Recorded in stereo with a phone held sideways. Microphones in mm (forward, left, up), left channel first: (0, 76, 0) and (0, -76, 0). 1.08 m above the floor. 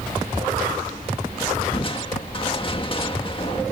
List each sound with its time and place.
1.7 s crushing: 35° left (ahead or behind)